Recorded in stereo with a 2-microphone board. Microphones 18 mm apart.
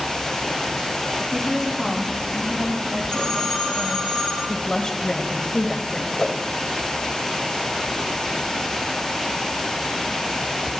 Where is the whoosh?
45° left (ahead or behind), 0.6 m.